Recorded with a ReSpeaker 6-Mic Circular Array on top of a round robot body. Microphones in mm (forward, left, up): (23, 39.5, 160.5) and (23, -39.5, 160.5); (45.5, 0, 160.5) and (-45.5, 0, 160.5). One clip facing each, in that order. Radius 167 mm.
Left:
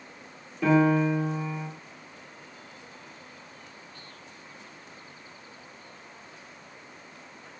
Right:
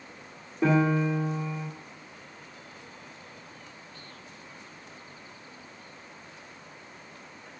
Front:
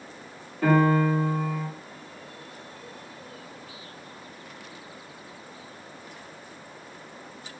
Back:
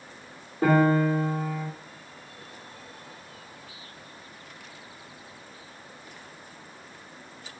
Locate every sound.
0.6 s a piano: 130° right, 1.9 m